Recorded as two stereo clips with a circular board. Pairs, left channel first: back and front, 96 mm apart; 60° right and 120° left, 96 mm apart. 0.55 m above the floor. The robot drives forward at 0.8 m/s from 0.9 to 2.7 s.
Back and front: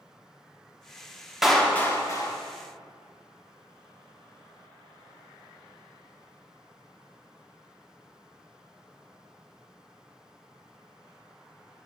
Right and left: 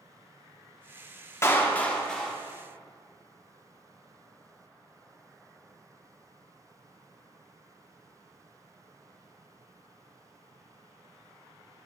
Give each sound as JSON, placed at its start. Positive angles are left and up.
{"t": 1.4, "sound": "a clap", "azimuth_deg": -85, "distance_m": 0.8}